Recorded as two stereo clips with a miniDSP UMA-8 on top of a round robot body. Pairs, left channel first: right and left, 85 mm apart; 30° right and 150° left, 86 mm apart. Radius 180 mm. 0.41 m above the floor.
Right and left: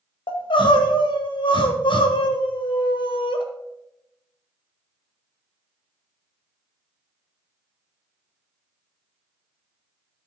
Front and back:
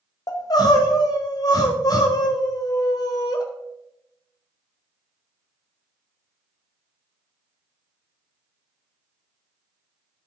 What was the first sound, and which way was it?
Crying, 75° right.